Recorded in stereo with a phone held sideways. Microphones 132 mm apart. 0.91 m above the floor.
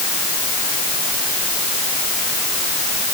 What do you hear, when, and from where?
Only background noise.